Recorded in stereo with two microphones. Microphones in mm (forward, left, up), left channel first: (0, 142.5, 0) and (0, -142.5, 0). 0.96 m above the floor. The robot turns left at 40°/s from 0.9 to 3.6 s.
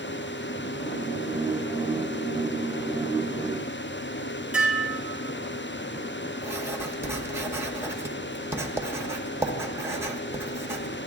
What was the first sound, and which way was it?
Dishes clattering, 5° right (ahead or behind).